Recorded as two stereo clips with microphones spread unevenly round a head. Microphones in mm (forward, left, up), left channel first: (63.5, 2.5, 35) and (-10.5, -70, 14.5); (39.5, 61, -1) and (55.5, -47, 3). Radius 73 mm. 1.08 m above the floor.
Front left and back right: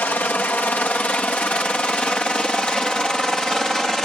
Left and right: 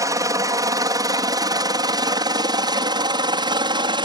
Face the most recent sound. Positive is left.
turn(degrees=-45)